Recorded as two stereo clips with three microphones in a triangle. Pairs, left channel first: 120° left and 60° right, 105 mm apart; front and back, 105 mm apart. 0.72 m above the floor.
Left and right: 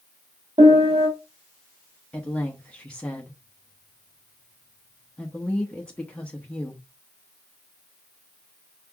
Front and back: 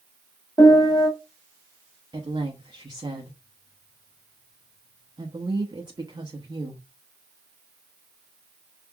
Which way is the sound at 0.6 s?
50° right.